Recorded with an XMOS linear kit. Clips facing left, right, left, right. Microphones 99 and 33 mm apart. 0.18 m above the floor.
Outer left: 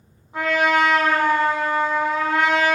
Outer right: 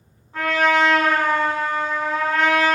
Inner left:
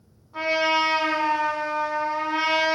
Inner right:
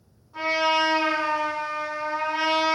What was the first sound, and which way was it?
A trumpet, 15° left (ahead or behind).